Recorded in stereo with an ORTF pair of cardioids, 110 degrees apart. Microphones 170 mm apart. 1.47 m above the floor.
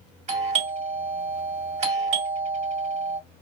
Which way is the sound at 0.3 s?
40° right.